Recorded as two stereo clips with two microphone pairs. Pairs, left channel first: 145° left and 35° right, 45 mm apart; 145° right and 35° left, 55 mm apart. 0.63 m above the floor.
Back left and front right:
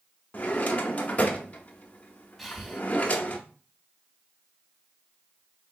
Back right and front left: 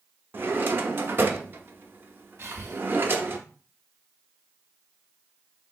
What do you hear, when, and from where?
0.3 s a drawer: 85° left, 0.6 m
2.4 s breathing: 50° left, 0.6 m